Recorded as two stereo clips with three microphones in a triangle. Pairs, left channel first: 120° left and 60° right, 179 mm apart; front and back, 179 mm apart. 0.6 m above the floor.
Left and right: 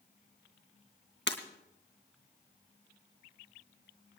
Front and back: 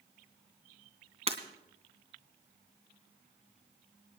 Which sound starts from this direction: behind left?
Breaking glass, at 1.3 s.